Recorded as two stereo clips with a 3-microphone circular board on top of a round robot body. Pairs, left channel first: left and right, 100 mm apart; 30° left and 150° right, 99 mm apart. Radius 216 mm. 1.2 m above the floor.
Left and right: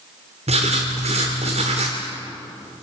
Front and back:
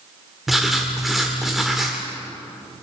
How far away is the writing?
About 1.0 m.